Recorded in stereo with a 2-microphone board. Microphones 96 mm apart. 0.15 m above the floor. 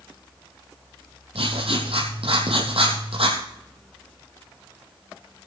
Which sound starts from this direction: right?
Writing, at 1.4 s.